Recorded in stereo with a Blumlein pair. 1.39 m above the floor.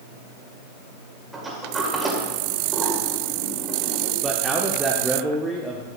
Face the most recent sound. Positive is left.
turn(degrees=-10)